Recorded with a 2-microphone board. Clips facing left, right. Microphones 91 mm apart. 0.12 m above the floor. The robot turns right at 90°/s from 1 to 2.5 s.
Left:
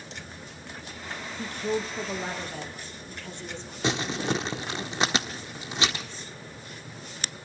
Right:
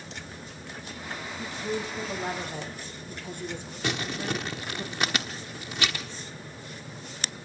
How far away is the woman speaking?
About 3 m.